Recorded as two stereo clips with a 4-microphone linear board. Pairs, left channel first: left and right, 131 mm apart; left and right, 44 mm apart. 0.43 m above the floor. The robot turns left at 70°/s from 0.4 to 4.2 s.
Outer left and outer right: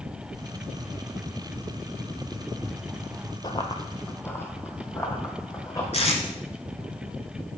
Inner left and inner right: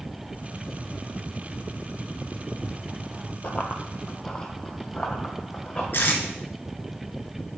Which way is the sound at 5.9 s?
55° left (ahead or behind).